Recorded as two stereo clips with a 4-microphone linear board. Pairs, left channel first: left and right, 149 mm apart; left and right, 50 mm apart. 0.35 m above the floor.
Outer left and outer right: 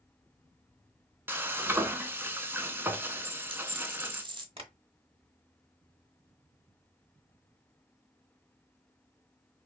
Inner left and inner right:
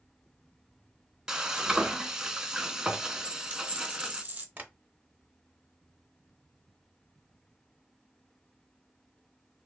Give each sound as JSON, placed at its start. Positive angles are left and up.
{"t": 1.3, "sound": "frying", "side_deg": -15, "distance_m": 0.5}
{"t": 3.2, "sound": "a dropped coin", "side_deg": -35, "distance_m": 0.8}
{"t": 4.6, "sound": "tapping", "side_deg": -40, "distance_m": 0.7}